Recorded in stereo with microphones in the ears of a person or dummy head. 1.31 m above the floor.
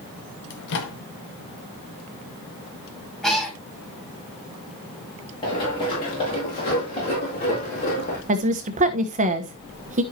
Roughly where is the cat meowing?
Centre.